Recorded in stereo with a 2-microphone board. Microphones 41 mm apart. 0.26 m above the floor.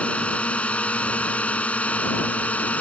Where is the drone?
30° left (ahead or behind); by 2.8 s 35° left (ahead or behind).